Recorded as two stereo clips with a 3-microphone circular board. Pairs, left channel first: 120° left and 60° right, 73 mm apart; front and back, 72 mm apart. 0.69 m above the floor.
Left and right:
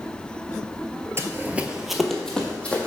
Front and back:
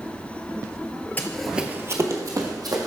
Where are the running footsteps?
50° right, 0.8 m; by 2.9 s 165° right, 2.0 m.